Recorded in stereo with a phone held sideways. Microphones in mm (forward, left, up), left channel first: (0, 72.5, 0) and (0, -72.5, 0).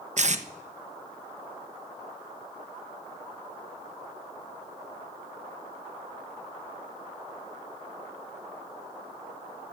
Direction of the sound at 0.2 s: 55° right (ahead or behind).